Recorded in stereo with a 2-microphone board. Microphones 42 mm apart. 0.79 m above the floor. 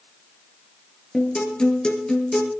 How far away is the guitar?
About 4 m.